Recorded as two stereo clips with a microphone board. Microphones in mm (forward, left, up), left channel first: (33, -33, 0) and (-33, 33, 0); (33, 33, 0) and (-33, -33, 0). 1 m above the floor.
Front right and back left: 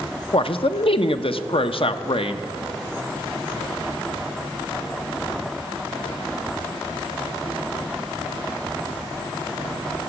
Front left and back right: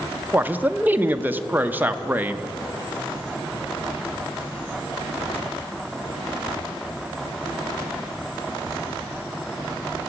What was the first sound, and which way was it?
A man speaking, 65° right.